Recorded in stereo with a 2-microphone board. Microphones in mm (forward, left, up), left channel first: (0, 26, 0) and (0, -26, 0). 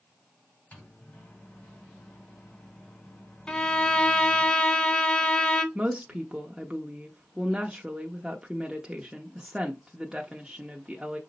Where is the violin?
20° left (ahead or behind), 0.5 m.